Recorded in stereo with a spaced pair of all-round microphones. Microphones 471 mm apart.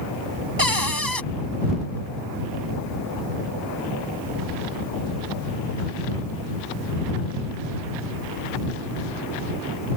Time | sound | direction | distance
0.6 | a cupboard door | 45° right (ahead or behind) | ?